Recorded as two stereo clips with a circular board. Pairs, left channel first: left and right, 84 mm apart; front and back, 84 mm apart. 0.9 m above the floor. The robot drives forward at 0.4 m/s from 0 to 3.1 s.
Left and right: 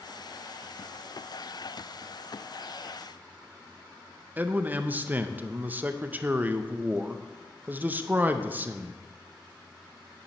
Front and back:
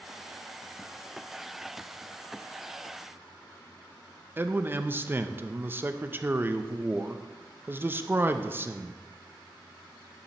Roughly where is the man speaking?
Behind right.